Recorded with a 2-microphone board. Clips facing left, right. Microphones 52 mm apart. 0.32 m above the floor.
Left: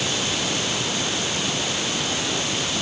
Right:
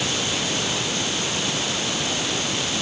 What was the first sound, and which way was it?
Only background noise.